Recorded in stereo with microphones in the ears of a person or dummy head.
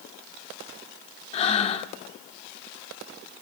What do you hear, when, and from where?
1.3 s breathing: 45° left (ahead or behind), 1.1 m